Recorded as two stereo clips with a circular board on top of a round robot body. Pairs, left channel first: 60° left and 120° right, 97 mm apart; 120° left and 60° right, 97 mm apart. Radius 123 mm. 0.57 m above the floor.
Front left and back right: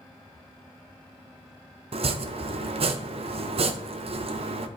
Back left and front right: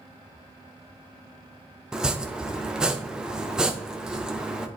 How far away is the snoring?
No snoring in this recording.